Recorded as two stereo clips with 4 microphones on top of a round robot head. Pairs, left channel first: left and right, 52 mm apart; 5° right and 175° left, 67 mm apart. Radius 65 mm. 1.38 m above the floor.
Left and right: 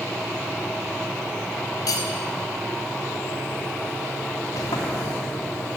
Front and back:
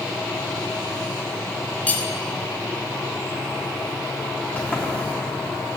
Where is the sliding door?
65° left, 3 m.